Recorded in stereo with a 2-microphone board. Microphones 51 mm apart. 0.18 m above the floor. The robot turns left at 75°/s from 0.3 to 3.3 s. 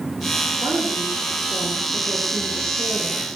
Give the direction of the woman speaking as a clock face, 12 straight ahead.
3 o'clock.